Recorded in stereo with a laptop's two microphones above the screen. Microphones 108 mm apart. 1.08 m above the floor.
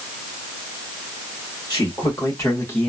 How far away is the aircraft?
I don't hear an aircraft.